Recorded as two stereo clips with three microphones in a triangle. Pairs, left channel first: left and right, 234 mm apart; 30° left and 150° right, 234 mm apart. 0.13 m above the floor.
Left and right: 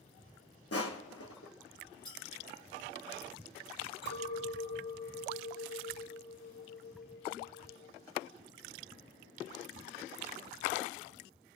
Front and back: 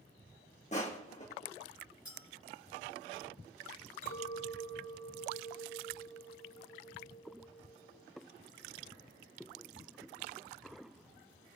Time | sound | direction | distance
0.7 | crushing | 90° left | 2 m
2.0 | a clink | 20° left | 6.5 m
4.0 | a clink | 70° left | 4.5 m